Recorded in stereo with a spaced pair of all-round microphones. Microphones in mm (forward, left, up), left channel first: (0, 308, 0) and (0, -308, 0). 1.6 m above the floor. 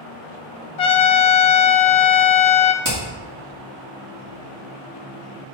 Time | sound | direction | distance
0.8 | a trumpet | 70° left (ahead or behind) | 0.6 m
2.8 | hammering | 30° right (ahead or behind) | 2.5 m